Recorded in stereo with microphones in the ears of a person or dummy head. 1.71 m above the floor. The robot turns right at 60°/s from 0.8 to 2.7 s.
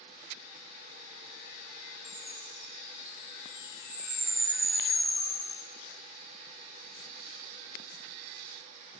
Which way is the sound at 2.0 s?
25° left (ahead or behind).